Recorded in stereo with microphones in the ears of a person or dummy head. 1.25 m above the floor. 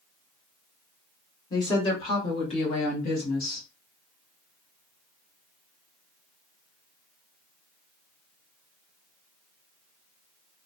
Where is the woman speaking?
25° left (ahead or behind), 1.9 m; by 3.6 s 55° left (ahead or behind), 1.2 m.